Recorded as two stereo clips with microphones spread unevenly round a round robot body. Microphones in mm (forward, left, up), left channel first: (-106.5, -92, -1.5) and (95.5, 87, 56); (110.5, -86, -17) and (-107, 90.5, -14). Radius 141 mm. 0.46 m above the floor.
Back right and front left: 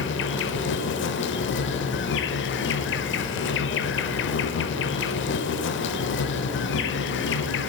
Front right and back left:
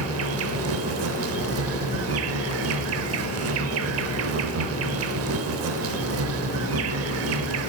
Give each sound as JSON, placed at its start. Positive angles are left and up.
{"t": 0.0, "sound": "an insect", "azimuth_deg": 180, "distance_m": 0.8}